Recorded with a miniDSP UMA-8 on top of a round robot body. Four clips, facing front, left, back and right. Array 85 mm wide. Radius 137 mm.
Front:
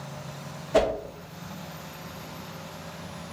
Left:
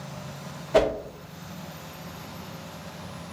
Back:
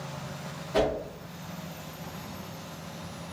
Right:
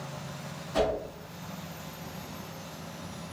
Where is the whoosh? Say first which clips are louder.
Left 6 dB, front 3 dB; 70° left, 1.3 m.